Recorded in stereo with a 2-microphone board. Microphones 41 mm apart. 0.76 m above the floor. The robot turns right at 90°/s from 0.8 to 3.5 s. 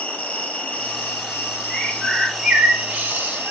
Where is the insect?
45° left, 1.9 m; by 3.5 s 75° right, 1.9 m.